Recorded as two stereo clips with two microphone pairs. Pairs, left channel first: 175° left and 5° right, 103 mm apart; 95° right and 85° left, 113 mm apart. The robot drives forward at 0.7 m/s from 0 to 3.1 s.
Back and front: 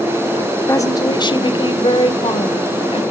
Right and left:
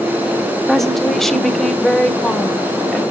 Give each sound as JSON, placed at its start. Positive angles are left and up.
{"t": 0.7, "sound": "a woman speaking", "azimuth_deg": -175, "distance_m": 0.9}